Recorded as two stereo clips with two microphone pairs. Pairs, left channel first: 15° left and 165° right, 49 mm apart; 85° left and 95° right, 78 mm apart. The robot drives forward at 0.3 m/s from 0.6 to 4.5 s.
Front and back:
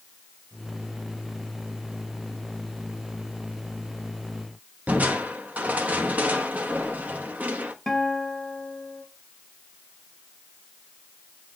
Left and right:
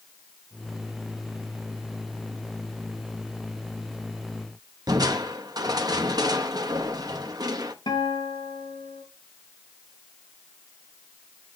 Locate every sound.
4.9 s crushing: 115° right, 1.1 m
7.9 s a guitar: 100° left, 2.5 m